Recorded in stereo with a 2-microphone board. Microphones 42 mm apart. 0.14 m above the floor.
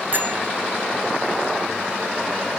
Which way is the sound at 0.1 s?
50° right (ahead or behind).